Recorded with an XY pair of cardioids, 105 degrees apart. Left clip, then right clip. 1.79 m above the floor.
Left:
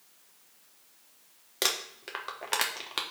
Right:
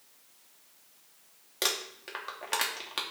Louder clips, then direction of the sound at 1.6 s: Left 1 dB; 20° left.